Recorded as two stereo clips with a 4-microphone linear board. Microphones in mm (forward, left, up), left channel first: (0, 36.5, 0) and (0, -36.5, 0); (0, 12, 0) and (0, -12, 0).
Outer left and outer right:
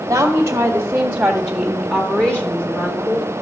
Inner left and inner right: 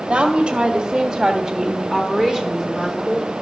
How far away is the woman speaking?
About 1.3 m.